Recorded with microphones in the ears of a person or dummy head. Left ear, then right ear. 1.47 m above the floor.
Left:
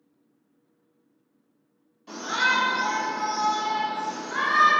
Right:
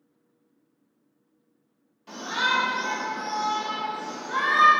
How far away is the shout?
About 1.3 m.